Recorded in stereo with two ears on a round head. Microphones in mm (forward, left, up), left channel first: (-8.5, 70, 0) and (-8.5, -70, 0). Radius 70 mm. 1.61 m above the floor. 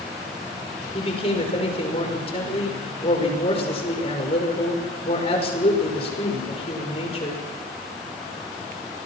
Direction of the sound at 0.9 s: 35° left (ahead or behind).